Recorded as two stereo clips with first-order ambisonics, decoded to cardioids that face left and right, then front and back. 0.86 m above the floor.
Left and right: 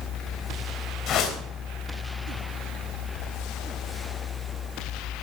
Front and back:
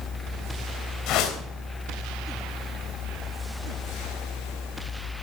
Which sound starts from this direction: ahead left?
A whoosh, at 1.1 s.